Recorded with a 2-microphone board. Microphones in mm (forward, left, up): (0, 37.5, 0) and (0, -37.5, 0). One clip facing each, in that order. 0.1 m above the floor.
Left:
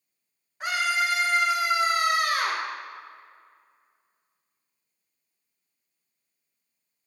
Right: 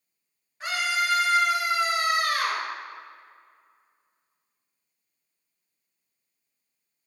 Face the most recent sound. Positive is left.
turn(degrees=20)  # may be behind; listen again after turning